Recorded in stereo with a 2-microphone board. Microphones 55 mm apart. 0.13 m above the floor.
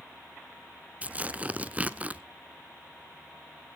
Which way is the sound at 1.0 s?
25° right (ahead or behind).